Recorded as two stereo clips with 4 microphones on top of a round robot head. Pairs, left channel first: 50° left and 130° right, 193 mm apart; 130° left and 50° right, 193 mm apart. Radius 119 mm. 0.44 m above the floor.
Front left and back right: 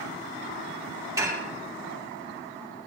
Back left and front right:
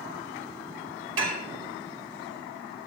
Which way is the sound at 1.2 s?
60° right.